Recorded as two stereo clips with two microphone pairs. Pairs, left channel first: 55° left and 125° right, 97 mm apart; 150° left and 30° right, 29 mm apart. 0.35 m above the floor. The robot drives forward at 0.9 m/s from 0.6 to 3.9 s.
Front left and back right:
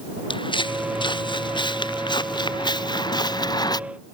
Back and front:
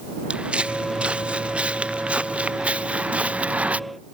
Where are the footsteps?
20° left; by 3.8 s 10° left.